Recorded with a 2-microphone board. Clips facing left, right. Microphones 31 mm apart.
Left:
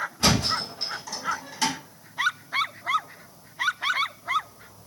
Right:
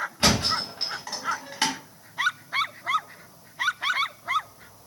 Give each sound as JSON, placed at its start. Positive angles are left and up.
{"t": 0.2, "sound": "a thud", "side_deg": -40, "distance_m": 0.9}